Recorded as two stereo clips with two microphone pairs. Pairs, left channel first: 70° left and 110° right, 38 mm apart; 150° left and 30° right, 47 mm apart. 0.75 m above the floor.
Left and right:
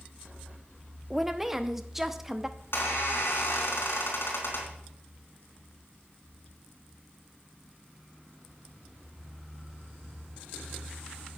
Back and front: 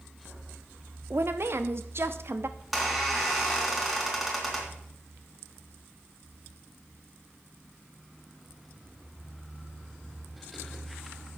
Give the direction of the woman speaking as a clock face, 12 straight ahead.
1 o'clock.